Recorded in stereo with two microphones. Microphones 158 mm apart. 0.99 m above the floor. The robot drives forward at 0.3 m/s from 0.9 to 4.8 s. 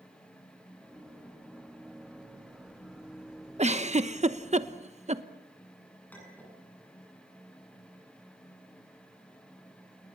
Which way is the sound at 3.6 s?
45° right (ahead or behind).